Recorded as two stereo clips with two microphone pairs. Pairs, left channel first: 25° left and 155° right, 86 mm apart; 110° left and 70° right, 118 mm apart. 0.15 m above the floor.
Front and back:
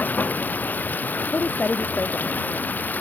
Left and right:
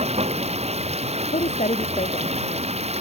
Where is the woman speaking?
95° left.